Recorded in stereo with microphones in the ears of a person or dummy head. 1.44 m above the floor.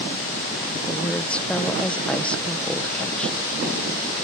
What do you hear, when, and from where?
0.9 s a woman speaking: 5° left (ahead or behind)